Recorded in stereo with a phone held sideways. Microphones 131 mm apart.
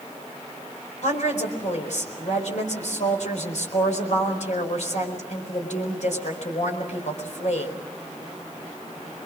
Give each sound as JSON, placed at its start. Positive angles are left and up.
{"t": 1.0, "sound": "a woman speaking", "side_deg": 65, "distance_m": 4.5}